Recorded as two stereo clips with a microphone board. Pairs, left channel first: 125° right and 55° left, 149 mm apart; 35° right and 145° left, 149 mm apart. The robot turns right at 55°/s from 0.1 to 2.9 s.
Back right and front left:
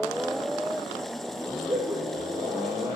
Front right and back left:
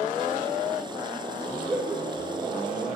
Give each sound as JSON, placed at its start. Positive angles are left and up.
{"t": 1.6, "sound": "laughter", "azimuth_deg": 95, "distance_m": 1.5}